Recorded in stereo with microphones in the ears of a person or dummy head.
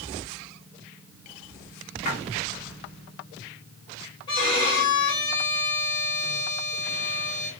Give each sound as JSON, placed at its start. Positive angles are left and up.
{"t": 2.0, "sound": "a splash", "side_deg": 40, "distance_m": 2.5}
{"t": 4.3, "sound": "a violin", "side_deg": 25, "distance_m": 2.0}